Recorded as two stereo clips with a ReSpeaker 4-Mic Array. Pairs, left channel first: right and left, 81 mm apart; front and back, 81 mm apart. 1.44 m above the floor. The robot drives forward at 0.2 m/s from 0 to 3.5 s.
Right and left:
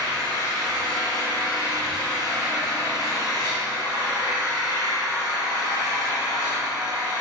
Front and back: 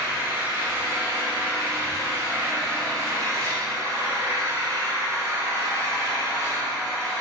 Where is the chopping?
I don't hear chopping.